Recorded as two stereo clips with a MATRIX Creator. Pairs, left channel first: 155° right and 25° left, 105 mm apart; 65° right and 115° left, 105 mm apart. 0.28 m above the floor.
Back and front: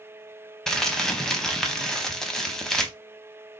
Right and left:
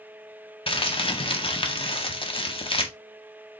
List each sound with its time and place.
0.7 s crumpling: 75° right, 0.9 m